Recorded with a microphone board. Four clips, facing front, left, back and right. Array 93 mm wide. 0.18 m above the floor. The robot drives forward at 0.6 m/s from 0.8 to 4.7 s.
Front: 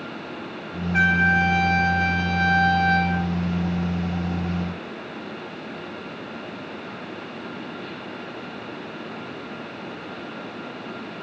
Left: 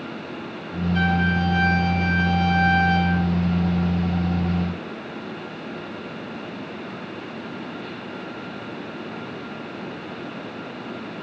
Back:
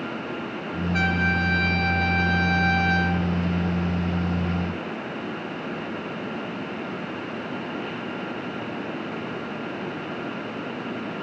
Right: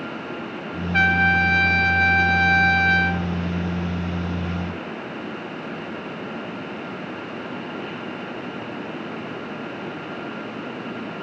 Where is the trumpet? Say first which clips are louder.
Right 5 dB, front 6 dB; 65° right, 2.5 m; by 3.2 s 100° right, 2 m.